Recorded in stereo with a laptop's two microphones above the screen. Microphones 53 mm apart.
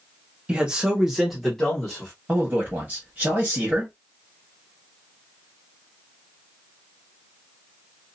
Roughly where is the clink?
I don't hear a clink.